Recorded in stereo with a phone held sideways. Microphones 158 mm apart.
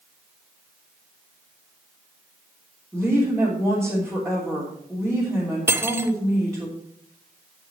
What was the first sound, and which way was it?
A woman speaking, 5° left (ahead or behind).